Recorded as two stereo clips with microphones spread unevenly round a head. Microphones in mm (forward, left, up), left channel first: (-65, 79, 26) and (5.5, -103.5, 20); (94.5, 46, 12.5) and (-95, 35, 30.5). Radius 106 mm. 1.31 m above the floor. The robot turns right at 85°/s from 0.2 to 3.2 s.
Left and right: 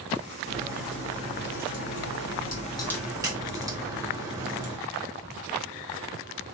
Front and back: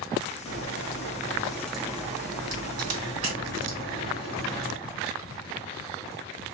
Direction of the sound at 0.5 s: 15° right.